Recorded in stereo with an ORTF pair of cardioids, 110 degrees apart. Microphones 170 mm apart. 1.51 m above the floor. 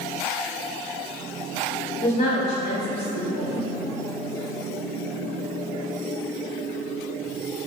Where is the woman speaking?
55° left, 1.3 m.